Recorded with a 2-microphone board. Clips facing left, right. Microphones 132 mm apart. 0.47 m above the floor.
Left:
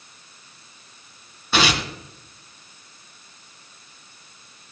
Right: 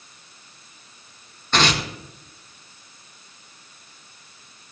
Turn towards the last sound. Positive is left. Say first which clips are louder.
# even
turn(degrees=10)  # may be behind; listen again after turning